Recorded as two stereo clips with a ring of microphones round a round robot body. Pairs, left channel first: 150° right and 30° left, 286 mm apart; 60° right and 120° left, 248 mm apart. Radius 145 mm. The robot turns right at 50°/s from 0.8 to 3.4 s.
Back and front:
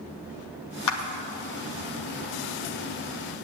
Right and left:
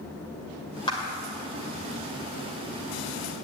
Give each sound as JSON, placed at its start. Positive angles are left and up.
{"t": 0.9, "sound": "a clap", "azimuth_deg": -135, "distance_m": 1.9}